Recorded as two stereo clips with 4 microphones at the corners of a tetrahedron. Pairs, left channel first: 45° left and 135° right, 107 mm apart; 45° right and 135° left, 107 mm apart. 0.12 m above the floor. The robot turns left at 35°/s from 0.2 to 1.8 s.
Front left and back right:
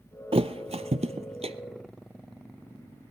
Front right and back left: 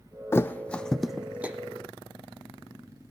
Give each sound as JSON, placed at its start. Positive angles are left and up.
{"t": 0.3, "sound": "a thud", "azimuth_deg": -110, "distance_m": 0.6}